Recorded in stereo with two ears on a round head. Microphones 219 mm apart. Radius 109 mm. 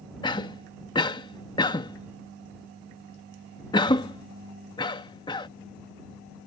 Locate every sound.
0.2 s a cough: 20° left (ahead or behind)